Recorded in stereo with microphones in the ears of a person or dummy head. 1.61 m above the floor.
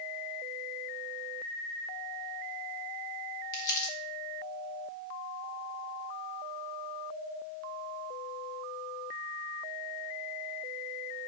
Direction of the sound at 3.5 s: 50° left (ahead or behind).